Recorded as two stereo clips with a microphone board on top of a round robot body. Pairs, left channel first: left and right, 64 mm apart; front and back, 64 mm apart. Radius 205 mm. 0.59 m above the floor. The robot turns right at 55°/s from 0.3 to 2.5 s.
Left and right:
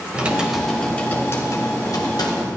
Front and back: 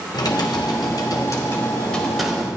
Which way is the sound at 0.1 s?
15° right.